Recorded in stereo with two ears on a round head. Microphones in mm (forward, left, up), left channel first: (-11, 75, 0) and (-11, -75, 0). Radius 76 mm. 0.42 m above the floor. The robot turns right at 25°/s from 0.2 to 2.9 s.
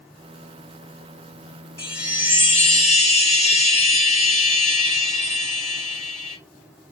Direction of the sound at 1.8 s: 15° left (ahead or behind).